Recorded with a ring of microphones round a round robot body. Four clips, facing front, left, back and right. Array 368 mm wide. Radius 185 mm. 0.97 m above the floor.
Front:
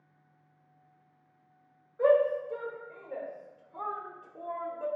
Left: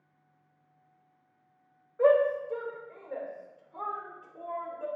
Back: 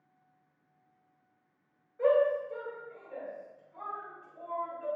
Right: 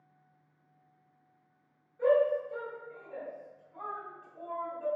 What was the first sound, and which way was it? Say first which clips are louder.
A shout: left 3 dB, front 2 dB; 75° left.